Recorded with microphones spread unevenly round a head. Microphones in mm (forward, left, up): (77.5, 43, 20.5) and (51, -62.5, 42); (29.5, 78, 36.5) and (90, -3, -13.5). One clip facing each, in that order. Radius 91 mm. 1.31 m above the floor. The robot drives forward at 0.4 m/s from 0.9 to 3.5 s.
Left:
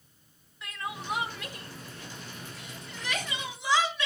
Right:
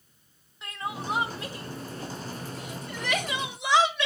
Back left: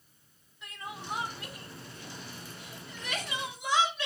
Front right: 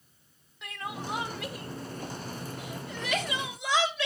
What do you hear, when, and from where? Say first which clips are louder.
0.6 s crying: right 3 dB, front right 5 dB; 40° right, 1.7 m; by 4.1 s 75° right, 1.1 m